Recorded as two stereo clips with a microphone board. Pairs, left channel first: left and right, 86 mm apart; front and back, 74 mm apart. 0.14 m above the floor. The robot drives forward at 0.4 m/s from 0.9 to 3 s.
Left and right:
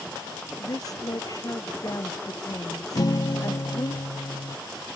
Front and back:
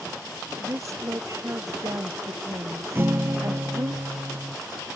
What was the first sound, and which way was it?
A woman speaking, 135° left.